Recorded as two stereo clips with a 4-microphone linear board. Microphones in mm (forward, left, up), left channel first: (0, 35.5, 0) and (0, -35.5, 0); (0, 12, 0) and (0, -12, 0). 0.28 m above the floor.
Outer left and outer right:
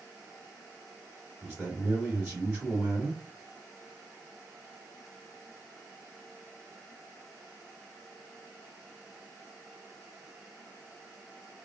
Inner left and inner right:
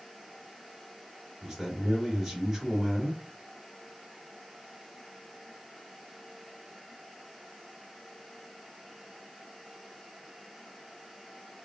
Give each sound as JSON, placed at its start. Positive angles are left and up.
{"t": 1.4, "sound": "a man speaking", "side_deg": -20, "distance_m": 1.4}